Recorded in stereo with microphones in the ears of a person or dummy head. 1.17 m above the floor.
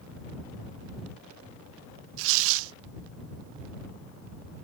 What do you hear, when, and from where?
2.2 s tearing paper: 80° right